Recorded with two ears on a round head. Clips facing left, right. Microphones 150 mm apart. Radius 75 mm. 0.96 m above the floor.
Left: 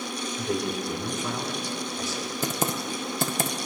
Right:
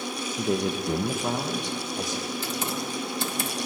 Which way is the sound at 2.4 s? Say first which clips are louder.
Left 2 dB; 40° left (ahead or behind).